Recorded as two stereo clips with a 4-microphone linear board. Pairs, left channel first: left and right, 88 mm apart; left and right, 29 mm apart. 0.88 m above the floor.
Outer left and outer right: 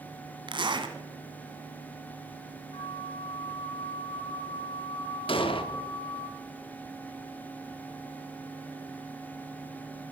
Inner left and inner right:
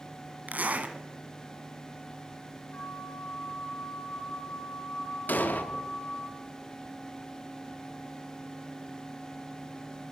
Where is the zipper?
60° right (ahead or behind), 1.4 m.